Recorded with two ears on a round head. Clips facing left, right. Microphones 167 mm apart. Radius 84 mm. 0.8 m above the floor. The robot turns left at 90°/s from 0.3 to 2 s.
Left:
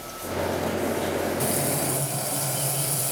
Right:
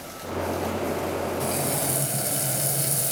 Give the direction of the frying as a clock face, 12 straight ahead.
11 o'clock.